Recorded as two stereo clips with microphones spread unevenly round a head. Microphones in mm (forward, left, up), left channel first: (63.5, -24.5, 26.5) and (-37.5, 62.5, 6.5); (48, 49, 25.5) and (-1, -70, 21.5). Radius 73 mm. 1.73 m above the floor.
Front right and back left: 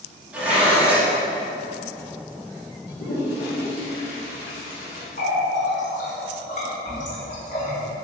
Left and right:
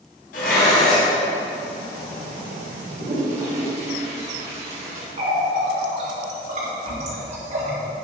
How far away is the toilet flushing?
About 2.5 m.